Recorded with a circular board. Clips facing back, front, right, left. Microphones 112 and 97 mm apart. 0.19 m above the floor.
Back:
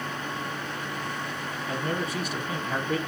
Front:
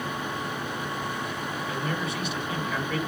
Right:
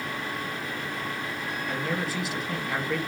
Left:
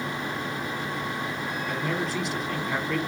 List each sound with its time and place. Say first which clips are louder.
1.7 s a man speaking: back 3 dB, left 1 dB; 175° right, 1.3 m